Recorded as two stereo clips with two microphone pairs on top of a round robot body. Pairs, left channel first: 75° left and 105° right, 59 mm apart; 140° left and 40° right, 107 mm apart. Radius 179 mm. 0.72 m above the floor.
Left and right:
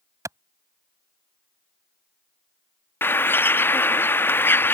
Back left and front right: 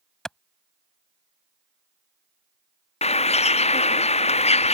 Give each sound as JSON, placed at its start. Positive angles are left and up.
{"t": 0.2, "sound": "a clap", "azimuth_deg": -135}
{"t": 3.0, "sound": "a bird", "azimuth_deg": 130}